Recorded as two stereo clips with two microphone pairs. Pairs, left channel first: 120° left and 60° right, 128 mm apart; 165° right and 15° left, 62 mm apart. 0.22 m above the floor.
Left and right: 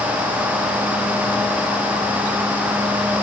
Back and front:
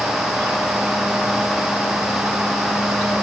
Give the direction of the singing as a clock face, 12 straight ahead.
No singing in this recording.